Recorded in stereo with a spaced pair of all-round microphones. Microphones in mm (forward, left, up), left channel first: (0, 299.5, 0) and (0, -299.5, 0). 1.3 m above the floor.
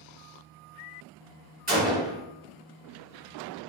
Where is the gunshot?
15° right (ahead or behind), 1.3 m.